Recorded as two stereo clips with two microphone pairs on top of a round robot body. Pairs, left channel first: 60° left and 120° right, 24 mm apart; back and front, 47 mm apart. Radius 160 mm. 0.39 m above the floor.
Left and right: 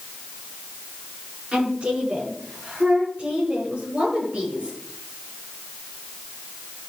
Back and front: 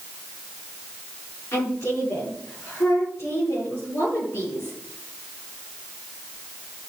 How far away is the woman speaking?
About 7 m.